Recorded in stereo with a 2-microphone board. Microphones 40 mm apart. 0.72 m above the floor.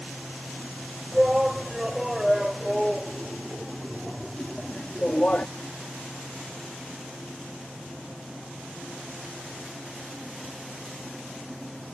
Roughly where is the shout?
Centre.